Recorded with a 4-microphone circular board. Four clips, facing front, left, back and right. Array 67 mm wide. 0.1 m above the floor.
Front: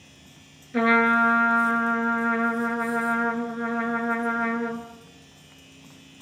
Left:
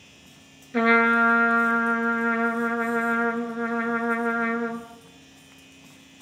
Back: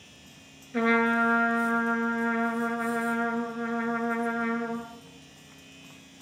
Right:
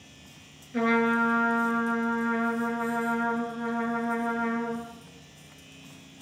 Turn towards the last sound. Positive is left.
turn(degrees=65)